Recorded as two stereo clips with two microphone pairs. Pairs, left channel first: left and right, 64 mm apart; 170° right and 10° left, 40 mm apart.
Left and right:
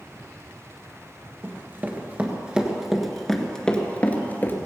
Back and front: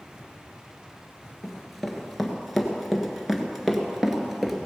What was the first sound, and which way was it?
Running footsteps, 80° right.